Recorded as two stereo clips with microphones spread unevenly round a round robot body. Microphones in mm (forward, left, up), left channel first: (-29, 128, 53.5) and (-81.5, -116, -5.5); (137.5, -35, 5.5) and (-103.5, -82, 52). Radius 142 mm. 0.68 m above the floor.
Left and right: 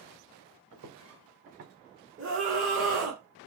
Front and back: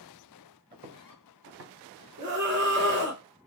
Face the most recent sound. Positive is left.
turn(degrees=-120)